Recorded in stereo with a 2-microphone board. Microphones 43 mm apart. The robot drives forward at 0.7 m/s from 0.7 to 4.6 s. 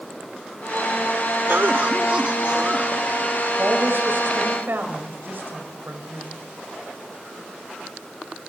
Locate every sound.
1.5 s a cough: 55° right (ahead or behind), 0.5 m; by 3.5 s 15° right (ahead or behind), 1.6 m
3.6 s a woman speaking: 55° right (ahead or behind), 5 m; by 6.4 s 65° right (ahead or behind), 5 m